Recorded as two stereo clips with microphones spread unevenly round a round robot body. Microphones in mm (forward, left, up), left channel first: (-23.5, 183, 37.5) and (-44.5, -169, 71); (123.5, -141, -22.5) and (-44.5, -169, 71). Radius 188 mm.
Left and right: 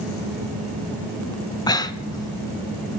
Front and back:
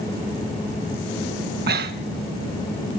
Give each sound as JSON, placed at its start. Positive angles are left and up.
{"t": 1.7, "sound": "breathing", "azimuth_deg": 165, "distance_m": 0.8}